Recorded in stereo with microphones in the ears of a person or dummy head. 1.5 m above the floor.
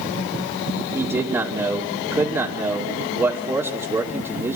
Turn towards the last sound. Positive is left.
turn(degrees=-10)  # may be behind; listen again after turning